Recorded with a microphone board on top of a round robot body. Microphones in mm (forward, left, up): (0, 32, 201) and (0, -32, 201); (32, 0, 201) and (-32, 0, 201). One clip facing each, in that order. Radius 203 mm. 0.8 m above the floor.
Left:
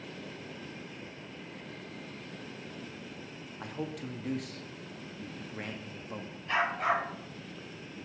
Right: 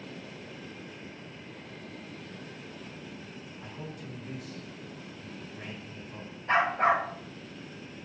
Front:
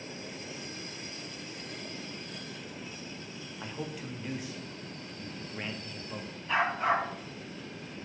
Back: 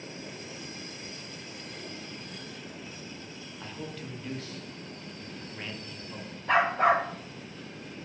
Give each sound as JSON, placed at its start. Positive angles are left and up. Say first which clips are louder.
{"t": 3.6, "sound": "a man speaking", "louder": "left 6 dB, front 1 dB", "azimuth_deg": 75, "distance_m": 2.0}
{"t": 6.5, "sound": "a dog barking", "louder": "right 5 dB, back 5 dB", "azimuth_deg": -145, "distance_m": 1.2}